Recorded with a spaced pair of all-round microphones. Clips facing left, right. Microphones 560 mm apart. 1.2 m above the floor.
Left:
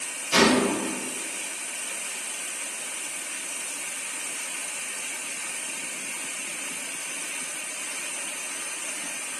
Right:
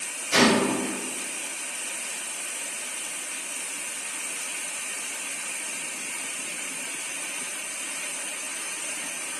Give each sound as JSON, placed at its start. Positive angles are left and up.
{"t": 0.3, "sound": "a gunshot", "side_deg": 20, "distance_m": 1.1}